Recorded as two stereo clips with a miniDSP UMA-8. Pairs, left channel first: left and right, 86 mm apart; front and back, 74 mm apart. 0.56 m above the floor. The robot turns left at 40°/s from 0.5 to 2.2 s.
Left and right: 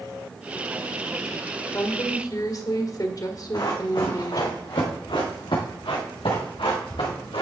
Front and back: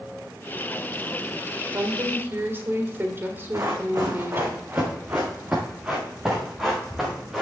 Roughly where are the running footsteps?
Behind left.